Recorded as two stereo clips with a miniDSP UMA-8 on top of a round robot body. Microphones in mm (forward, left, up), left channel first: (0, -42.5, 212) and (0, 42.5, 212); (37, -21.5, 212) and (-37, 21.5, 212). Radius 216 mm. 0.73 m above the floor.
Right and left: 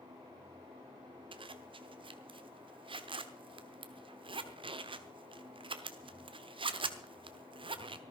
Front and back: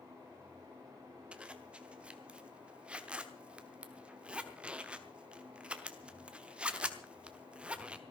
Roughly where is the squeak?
I don't hear a squeak.